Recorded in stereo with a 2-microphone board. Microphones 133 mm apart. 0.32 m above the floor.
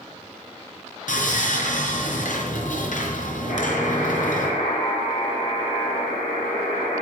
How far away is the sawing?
About 3.5 m.